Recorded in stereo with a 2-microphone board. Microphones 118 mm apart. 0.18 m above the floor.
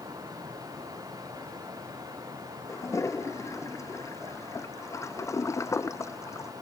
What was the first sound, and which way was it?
A toilet flushing, 25° left (ahead or behind).